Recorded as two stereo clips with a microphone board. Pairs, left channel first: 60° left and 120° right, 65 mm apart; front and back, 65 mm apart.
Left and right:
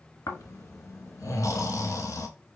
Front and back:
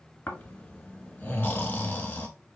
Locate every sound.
0.3 s snoring: 60° left, 0.8 m